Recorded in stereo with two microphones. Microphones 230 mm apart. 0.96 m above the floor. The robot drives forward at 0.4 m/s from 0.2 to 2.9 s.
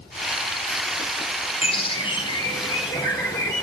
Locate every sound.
1.6 s a bird: 25° left (ahead or behind), 1.1 m; by 3.6 s 20° left (ahead or behind), 1.4 m